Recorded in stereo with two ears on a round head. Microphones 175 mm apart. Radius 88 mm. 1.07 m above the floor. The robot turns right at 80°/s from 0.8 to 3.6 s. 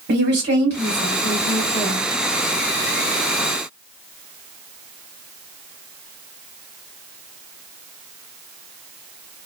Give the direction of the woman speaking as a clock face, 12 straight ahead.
3 o'clock.